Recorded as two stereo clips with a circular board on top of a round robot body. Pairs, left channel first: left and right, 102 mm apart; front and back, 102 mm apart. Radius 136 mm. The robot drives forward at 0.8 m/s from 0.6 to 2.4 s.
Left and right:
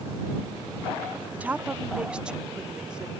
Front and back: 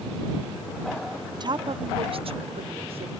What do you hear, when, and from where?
1.3 s a woman speaking: 160° right; by 3.1 s 170° right